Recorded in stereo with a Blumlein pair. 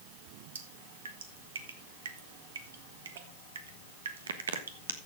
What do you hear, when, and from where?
0.6 s dripping: 65° right, 1.4 m